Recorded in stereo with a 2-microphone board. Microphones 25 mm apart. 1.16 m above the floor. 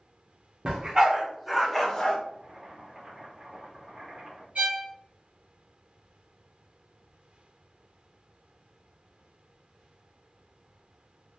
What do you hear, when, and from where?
0.7 s a dog barking: 30° right (ahead or behind), 1.0 m; by 2.2 s 25° left (ahead or behind), 0.7 m
2.3 s boiling: 35° right (ahead or behind), 1.4 m
4.5 s a violin: 60° right (ahead or behind), 1.0 m